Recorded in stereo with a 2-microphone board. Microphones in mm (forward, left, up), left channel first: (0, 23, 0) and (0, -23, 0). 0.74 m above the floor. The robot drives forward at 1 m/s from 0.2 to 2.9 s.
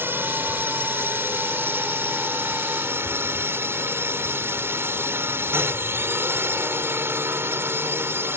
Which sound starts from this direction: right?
A drone, at 0.0 s.